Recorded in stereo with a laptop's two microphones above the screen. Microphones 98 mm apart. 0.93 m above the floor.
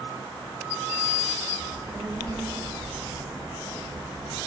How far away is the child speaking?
About 1.4 m.